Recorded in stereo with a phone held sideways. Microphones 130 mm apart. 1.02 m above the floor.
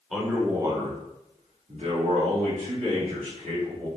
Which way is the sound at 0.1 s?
Centre (ahead or behind).